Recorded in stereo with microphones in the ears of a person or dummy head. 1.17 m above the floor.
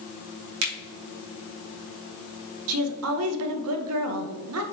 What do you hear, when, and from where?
0.6 s a finger snap: 75° right (ahead or behind), 1.3 m
2.7 s a woman speaking: 75° right (ahead or behind), 0.7 m